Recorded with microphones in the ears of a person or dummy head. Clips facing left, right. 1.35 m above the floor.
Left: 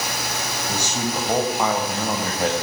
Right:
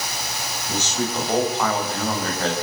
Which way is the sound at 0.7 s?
10° left (ahead or behind).